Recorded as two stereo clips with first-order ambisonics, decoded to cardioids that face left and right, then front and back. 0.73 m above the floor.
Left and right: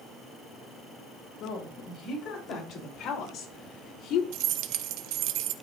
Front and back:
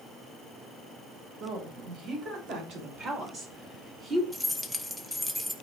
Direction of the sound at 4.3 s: 90° right.